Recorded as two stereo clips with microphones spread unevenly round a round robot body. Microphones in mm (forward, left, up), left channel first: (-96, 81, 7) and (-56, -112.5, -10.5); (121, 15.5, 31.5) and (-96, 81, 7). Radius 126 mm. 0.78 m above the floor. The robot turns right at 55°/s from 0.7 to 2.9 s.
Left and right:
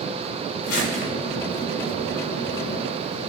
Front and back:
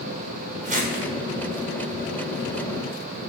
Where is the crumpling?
105° left, 2 m; by 1.1 s 130° left, 2 m.